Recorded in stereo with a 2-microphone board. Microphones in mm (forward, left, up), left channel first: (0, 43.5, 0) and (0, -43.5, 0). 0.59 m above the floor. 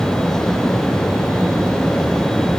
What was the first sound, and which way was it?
Only background noise.